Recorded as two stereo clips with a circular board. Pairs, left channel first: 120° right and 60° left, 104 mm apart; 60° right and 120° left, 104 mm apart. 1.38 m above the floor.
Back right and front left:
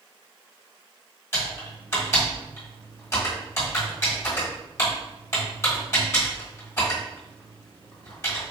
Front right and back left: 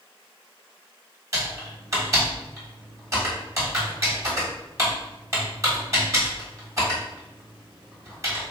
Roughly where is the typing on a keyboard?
Behind.